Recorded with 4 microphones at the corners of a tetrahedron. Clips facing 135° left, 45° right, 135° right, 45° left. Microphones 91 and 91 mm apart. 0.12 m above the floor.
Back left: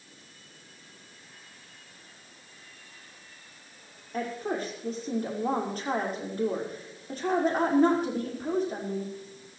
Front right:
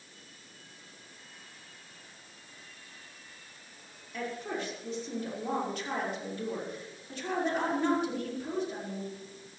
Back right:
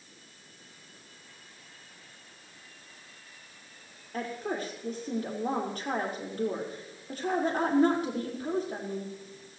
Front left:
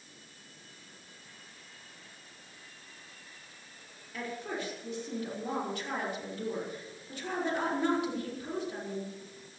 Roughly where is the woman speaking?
Behind.